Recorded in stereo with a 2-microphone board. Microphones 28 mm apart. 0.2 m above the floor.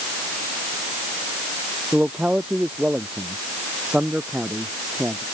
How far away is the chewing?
No chewing in this recording.